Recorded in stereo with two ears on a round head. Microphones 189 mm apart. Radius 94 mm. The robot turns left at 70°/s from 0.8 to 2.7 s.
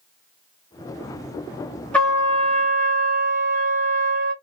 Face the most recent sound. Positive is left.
turn(degrees=-45)